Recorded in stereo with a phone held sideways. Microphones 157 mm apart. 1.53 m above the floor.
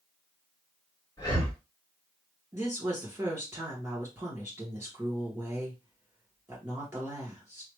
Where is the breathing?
25° left (ahead or behind), 2.5 m.